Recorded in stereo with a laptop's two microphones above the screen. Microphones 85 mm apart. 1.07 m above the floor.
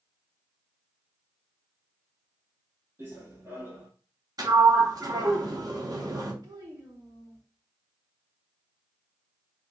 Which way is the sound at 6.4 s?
50° right (ahead or behind).